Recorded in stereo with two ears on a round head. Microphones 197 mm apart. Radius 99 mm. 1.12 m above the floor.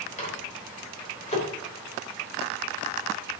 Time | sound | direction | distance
0.2 | a microwave | 30° left (ahead or behind) | 3.5 m